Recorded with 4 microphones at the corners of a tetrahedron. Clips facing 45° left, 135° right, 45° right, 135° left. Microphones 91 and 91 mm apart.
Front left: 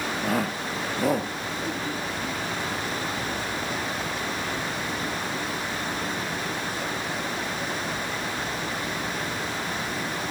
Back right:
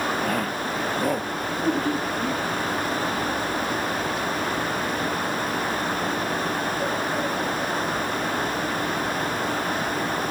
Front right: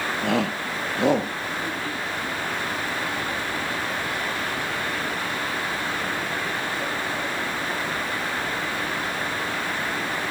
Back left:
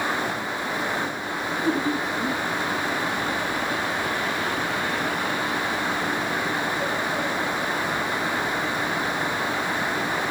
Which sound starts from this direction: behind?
Laughter, at 1.6 s.